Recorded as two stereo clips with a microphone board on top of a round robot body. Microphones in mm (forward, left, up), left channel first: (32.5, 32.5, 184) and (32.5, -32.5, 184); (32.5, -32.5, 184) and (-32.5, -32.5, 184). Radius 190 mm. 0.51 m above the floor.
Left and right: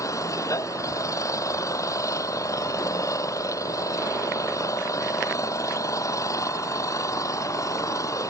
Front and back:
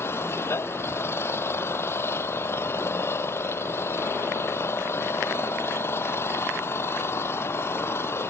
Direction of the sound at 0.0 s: 55° left.